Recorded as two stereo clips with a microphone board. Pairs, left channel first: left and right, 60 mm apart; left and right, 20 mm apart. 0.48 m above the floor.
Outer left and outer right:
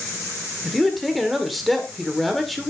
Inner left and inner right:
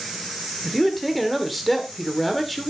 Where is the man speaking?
Centre (ahead or behind), 1.6 m.